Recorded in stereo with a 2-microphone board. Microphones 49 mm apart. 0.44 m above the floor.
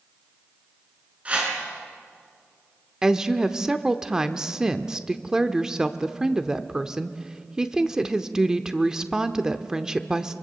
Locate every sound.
1.2 s a whoosh: 25° right (ahead or behind), 5 m
3.0 s a woman speaking: 15° right (ahead or behind), 0.8 m